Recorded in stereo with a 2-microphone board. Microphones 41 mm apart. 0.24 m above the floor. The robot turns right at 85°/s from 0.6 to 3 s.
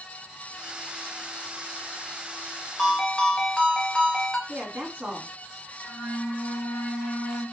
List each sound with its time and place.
2.8 s a ringtone: 5° right (ahead or behind), 1.0 m; by 4.4 s 10° left (ahead or behind), 1.0 m
4.5 s a woman speaking: 45° right (ahead or behind), 2.0 m
5.8 s a flute: 45° left (ahead or behind), 0.8 m